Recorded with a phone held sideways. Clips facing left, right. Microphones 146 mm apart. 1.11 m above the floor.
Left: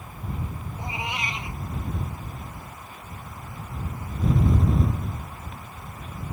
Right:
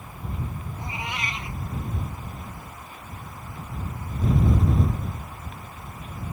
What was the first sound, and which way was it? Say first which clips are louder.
A cat meowing: left 2 dB; 20° left (ahead or behind).